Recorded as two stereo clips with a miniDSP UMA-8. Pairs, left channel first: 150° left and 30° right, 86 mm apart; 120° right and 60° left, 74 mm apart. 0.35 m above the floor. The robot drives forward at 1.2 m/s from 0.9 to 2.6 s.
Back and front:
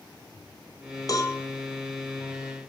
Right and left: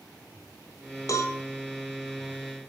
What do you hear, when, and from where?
1.1 s a cowbell: 165° right, 1.9 m